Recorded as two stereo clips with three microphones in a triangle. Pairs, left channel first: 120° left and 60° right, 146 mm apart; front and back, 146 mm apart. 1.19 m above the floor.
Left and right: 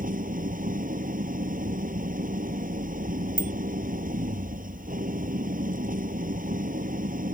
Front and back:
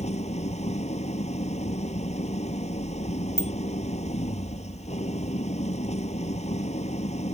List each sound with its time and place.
0.0 s an engine running: 40° right
3.4 s a bicycle bell: 40° right